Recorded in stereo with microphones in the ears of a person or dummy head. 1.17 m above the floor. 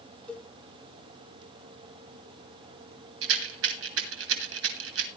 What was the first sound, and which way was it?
A cowbell, 5° left (ahead or behind).